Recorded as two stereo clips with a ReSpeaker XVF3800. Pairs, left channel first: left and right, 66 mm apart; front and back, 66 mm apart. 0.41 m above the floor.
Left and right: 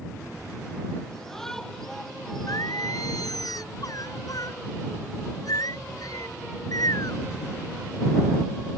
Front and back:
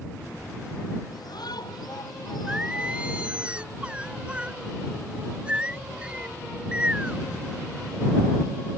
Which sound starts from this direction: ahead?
A shout, at 1.1 s.